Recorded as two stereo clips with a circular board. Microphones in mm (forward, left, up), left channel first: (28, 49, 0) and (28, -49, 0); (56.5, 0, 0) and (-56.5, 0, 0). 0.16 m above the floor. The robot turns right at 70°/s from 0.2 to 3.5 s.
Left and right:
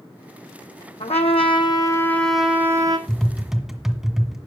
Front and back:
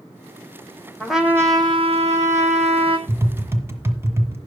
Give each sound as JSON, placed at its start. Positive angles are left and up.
{"t": 1.0, "sound": "a trumpet", "azimuth_deg": 85, "distance_m": 1.3}
{"t": 3.1, "sound": "tapping", "azimuth_deg": 165, "distance_m": 1.7}